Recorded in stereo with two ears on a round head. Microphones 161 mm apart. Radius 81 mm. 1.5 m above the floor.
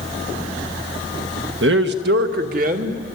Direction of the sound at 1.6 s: 65° right (ahead or behind).